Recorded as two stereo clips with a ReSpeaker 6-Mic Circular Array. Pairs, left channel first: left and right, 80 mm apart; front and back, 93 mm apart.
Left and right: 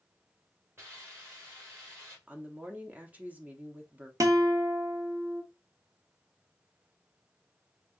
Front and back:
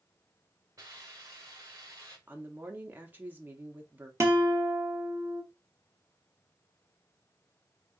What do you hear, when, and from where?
0.8 s a hiss: 140° right, 1.9 m
2.3 s a woman speaking: 135° right, 0.8 m
4.2 s a guitar: 125° right, 1.0 m